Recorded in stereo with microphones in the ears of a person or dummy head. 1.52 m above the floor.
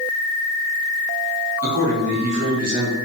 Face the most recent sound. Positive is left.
turn(degrees=-40)  # may be behind; listen again after turning